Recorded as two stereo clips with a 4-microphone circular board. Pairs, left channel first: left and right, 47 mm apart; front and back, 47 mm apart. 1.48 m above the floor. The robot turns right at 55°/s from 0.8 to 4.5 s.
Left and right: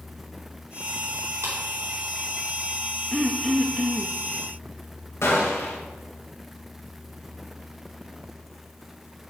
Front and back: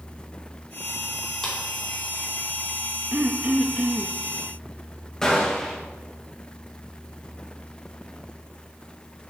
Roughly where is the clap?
Right.